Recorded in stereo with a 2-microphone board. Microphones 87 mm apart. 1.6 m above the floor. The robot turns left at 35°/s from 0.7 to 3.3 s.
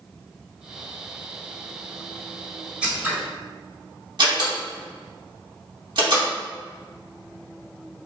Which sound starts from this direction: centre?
Scissors, at 2.8 s.